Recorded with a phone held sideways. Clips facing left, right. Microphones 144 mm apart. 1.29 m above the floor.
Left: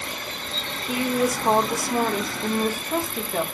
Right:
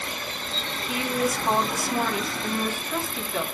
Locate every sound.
0.9 s a woman speaking: 45° left (ahead or behind), 1.4 m